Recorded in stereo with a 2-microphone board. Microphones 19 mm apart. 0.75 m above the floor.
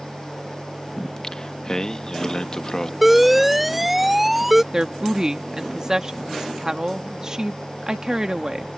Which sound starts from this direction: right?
A woman speaking, at 4.7 s.